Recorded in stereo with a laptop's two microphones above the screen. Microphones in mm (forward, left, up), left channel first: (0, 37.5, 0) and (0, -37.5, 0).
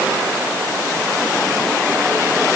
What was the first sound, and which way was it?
Only background noise.